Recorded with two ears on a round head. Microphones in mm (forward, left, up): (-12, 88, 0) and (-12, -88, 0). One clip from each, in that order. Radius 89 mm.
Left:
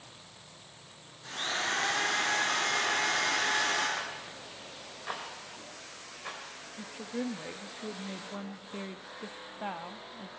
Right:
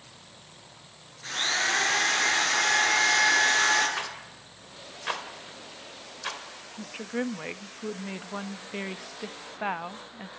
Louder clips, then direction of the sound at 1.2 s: Right 6 dB; 55° right (ahead or behind).